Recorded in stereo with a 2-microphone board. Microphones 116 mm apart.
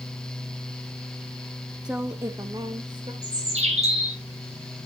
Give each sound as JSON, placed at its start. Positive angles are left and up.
{"t": 1.9, "sound": "a woman speaking", "side_deg": -5, "distance_m": 0.6}
{"t": 3.2, "sound": "a bird", "side_deg": -70, "distance_m": 3.5}